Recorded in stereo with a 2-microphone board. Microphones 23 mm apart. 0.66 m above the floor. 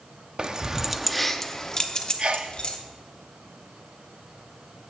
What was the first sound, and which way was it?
Keys jangling, 40° right (ahead or behind).